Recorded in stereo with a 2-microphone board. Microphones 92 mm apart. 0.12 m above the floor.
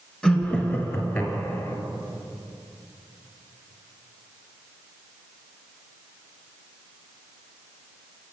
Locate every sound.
0.2 s laughter: 10° left (ahead or behind), 1.2 m; by 1.8 s 35° left (ahead or behind), 1.7 m